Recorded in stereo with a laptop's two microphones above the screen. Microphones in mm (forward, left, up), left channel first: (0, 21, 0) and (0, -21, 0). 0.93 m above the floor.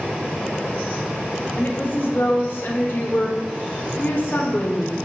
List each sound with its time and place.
1.6 s a woman speaking: 55° left (ahead or behind), 1.5 m